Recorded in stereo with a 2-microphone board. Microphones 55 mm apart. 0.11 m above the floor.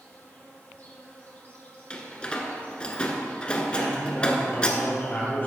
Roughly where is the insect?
Left.